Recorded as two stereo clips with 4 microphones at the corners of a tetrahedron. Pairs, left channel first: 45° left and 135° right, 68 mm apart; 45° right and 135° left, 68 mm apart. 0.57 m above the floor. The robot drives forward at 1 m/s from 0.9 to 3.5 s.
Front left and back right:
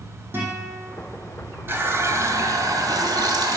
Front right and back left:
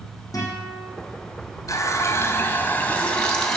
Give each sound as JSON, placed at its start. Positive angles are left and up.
{"t": 0.3, "sound": "a guitar", "azimuth_deg": -75, "distance_m": 7.0}
{"t": 1.7, "sound": "a running tap", "azimuth_deg": -80, "distance_m": 2.0}